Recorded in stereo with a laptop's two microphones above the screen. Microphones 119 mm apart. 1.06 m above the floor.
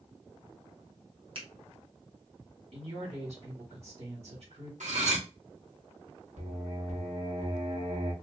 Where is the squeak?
No squeak in this recording.